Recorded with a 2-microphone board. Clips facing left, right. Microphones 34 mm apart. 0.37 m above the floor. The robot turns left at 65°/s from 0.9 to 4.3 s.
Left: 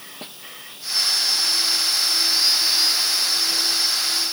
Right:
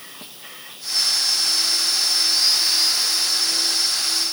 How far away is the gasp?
No gasp in this recording.